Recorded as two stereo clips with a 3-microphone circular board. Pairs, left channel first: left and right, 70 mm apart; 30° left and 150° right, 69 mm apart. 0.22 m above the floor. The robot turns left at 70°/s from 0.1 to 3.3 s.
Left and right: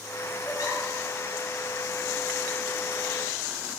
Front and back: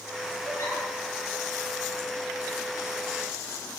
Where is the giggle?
80° left, 1.5 m; by 0.8 s 60° left, 1.5 m.